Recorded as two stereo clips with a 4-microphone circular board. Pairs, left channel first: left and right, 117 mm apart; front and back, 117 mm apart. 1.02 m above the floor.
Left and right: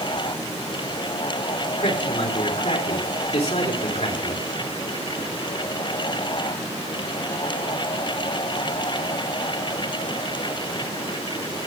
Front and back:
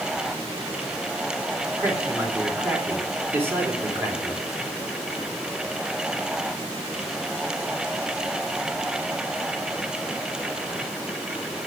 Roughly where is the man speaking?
Left.